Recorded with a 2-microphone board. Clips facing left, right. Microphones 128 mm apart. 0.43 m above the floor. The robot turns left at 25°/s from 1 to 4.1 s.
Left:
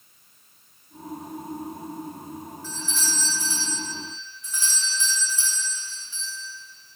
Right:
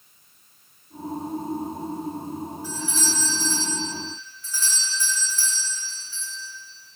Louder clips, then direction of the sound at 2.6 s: Right 3 dB; 165° right.